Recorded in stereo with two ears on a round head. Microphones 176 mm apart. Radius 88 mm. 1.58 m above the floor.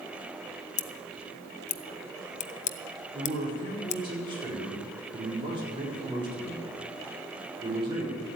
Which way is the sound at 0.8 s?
40° left (ahead or behind).